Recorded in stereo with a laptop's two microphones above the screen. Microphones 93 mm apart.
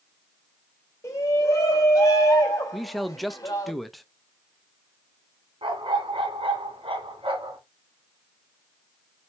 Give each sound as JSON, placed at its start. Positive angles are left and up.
{"t": 1.0, "sound": "a shout", "side_deg": 35, "distance_m": 3.5}
{"t": 2.7, "sound": "a man speaking", "side_deg": 0, "distance_m": 0.6}
{"t": 5.6, "sound": "a dog barking", "side_deg": -70, "distance_m": 2.5}